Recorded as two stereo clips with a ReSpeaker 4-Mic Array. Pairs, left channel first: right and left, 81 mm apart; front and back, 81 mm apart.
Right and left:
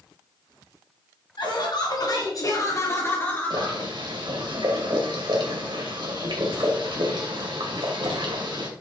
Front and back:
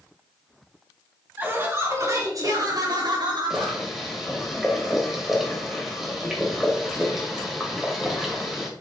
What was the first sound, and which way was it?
Laughter, 115° right.